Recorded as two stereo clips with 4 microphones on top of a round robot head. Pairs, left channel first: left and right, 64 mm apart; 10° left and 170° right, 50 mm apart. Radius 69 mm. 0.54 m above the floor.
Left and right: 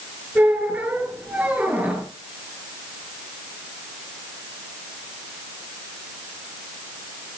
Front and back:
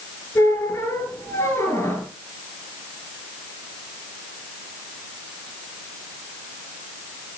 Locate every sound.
0.3 s a squeak: 25° right, 6 m